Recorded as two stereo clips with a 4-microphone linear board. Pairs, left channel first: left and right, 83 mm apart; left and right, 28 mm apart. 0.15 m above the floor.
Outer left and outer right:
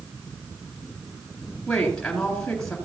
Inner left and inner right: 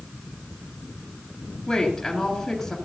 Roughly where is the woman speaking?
Centre.